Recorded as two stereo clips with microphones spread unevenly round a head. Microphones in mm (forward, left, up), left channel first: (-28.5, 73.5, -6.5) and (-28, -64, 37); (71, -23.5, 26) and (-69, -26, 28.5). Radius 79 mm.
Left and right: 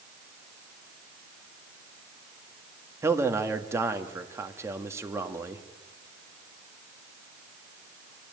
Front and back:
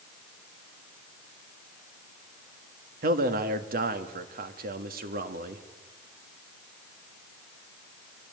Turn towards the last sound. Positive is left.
turn(degrees=-165)